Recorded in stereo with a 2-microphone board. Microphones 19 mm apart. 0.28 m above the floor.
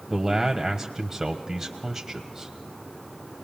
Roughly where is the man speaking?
Right.